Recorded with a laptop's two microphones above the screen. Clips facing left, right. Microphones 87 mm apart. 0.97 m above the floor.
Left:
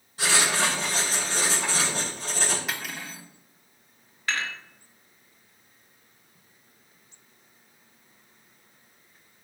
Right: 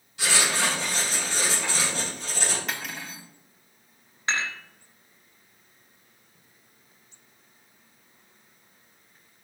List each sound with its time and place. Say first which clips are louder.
0.2 s writing: left 1 dB; 40° left (ahead or behind), 4 m
2.7 s cutlery clinking: even; centre (ahead or behind), 1.1 m
4.3 s dishes clattering: right 1 dB; 25° right (ahead or behind), 1.2 m